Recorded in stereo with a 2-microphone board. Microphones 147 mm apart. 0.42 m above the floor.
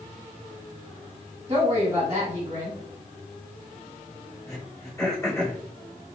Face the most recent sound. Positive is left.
turn(degrees=20)  # may be behind; listen again after turning